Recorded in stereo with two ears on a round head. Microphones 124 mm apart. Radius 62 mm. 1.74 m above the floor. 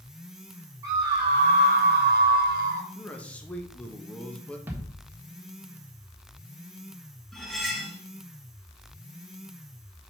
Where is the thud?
15° right (ahead or behind), 1.5 m.